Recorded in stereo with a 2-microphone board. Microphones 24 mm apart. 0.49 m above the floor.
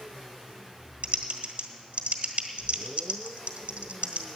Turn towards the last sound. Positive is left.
turn(degrees=-60)  # may be behind; listen again after turning